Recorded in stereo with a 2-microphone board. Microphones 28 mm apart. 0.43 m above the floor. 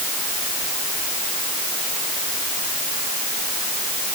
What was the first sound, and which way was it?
Only background noise.